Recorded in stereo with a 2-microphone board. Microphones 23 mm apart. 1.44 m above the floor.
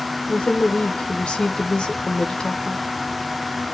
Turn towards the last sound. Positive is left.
turn(degrees=50)  # may be behind; listen again after turning